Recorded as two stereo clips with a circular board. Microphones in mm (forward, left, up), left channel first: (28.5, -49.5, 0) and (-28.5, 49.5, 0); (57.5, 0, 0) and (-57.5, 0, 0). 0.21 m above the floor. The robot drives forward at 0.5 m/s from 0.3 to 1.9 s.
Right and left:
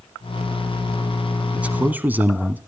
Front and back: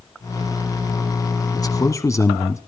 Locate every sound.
1.5 s a man speaking: 45° left, 1.5 m; by 2.6 s 50° left, 1.4 m